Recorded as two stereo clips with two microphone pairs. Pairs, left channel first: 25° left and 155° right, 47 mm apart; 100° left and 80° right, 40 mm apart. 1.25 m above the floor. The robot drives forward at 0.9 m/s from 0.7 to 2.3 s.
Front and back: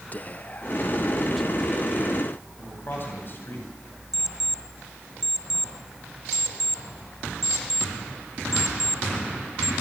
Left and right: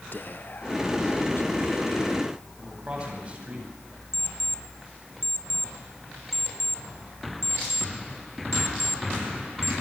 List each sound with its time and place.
0.1 s whispering: 75° left, 1.0 m; by 2.8 s 145° left, 1.5 m
2.6 s a man speaking: 15° right, 9 m
4.1 s an alarm clock: 125° left, 1.6 m